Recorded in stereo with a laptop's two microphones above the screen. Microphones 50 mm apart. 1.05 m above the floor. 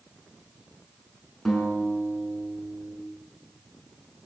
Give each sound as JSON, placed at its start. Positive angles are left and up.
{"t": 1.4, "sound": "a guitar", "side_deg": 10, "distance_m": 5.5}